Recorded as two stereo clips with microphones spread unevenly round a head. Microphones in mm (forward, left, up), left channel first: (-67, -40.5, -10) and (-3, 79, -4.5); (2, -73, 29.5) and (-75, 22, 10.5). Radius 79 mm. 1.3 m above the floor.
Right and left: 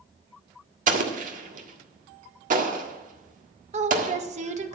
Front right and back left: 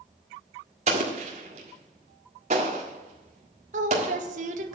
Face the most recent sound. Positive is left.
turn(degrees=100)